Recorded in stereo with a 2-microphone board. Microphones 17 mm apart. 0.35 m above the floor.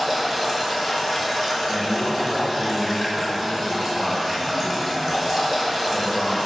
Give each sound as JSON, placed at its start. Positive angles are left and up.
{"t": 0.0, "sound": "running water", "side_deg": -5, "distance_m": 1.7}
{"t": 1.7, "sound": "a man speaking", "side_deg": -25, "distance_m": 1.6}